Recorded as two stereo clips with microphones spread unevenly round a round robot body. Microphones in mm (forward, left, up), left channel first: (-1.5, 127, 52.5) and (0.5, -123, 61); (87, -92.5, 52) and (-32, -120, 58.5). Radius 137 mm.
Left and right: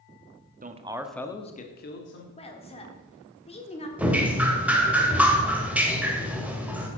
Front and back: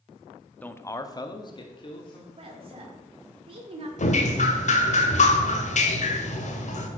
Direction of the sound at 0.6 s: 55° right.